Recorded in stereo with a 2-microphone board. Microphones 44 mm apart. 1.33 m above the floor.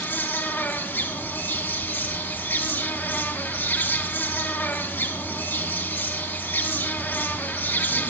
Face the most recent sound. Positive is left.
turn(degrees=50)  # may be behind; listen again after turning